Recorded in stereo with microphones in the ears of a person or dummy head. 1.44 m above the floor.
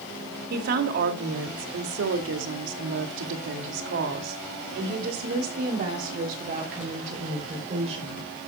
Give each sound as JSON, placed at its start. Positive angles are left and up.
{"t": 0.5, "sound": "a woman speaking", "side_deg": -60, "distance_m": 2.5}